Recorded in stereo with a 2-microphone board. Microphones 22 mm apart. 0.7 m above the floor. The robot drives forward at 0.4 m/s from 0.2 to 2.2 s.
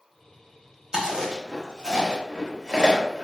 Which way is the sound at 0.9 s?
35° right (ahead or behind).